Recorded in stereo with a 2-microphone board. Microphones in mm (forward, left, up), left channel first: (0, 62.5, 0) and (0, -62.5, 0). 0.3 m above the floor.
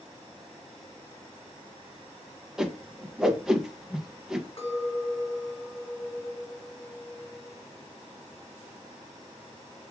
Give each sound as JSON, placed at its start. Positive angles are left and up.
{"t": 2.6, "sound": "a whoosh", "side_deg": -5, "distance_m": 0.5}
{"t": 4.6, "sound": "a clink", "side_deg": 50, "distance_m": 1.7}